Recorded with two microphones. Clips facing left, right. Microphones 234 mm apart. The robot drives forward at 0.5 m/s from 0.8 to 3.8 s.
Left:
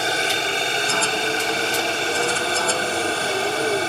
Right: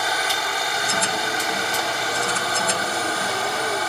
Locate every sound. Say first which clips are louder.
0.0 s a helicopter: left 4 dB; 30° left (ahead or behind)